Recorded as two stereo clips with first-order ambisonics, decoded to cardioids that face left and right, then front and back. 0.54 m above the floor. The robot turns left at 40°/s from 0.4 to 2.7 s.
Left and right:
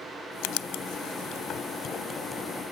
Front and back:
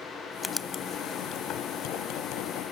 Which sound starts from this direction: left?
Writing, at 0.4 s.